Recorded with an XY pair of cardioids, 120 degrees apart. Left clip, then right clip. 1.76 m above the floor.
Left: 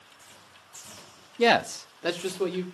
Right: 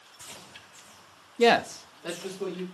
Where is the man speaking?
5° right, 0.6 m; by 2.6 s 75° left, 1.5 m.